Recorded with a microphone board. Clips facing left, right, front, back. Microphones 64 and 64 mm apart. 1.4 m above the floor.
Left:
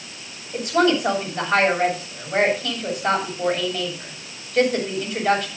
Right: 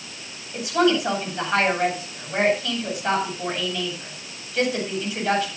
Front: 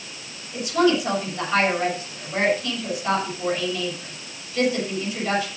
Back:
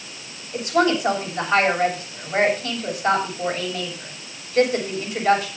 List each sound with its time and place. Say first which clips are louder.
0.5 s a woman speaking: left 1 dB, even; 130° left, 6.5 m